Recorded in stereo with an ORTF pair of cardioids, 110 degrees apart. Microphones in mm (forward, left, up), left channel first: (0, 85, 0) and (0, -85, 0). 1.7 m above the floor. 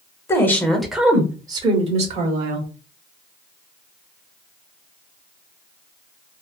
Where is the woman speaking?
15° left, 1.1 m; by 2.7 s 55° right, 1.3 m.